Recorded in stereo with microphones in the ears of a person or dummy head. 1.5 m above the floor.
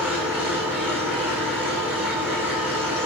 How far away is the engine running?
About 4.5 m.